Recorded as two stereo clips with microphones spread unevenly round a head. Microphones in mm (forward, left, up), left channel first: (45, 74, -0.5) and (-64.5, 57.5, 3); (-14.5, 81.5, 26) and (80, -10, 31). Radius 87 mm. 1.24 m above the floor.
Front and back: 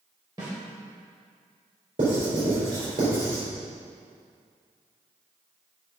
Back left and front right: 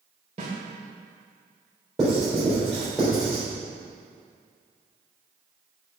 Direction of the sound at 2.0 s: 130° right.